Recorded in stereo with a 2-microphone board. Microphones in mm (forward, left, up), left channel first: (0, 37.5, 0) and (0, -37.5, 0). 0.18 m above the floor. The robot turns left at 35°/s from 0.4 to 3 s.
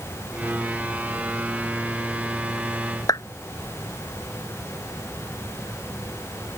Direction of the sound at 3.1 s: 55° left (ahead or behind).